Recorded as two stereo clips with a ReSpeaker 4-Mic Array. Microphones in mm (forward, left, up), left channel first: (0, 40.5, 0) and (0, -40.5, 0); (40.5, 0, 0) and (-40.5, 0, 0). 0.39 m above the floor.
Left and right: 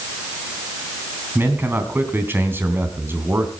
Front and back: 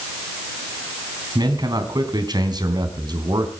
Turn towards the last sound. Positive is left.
turn(degrees=-150)